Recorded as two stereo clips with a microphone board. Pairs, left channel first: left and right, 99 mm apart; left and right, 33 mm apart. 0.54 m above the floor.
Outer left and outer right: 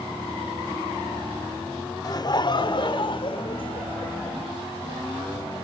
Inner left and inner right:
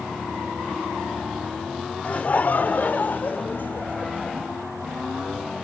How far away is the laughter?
About 2.0 m.